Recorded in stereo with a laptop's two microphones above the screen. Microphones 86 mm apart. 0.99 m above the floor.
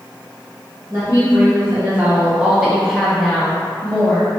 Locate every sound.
0.9 s a woman speaking: 35° right (ahead or behind), 0.9 m; by 4.3 s 15° left (ahead or behind), 1.2 m